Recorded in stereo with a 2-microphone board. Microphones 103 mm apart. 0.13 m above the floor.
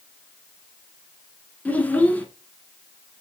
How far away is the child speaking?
About 1.2 m.